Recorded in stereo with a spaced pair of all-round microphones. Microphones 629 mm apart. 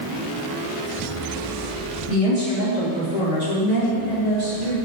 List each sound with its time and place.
2.1 s a woman speaking: 55° right (ahead or behind), 2 m; by 4.8 s 85° right, 3.5 m